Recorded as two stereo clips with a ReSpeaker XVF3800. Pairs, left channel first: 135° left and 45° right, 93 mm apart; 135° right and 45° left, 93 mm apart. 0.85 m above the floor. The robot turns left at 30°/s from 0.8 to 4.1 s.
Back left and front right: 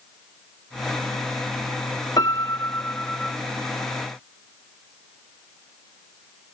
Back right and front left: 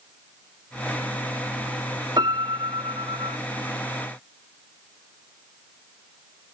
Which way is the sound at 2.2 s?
90° left.